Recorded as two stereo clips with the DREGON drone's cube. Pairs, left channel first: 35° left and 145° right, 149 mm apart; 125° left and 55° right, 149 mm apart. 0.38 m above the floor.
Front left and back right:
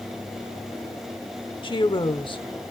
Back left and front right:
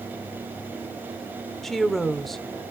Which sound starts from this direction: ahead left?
A woman speaking, at 1.6 s.